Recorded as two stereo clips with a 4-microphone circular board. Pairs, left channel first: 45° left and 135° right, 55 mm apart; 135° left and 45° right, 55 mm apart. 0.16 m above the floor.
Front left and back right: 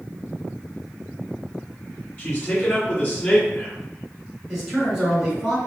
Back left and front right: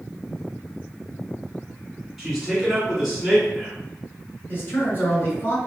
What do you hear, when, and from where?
2.2 s a man speaking: 35° left, 1.9 m
4.5 s a man speaking: 155° left, 2.0 m